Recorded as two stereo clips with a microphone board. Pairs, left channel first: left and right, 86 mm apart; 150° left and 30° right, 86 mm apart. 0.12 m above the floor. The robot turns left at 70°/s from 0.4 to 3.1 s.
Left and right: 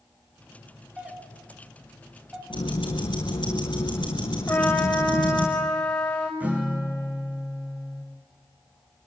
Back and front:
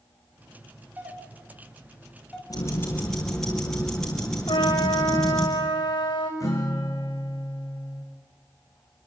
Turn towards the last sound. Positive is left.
turn(degrees=-160)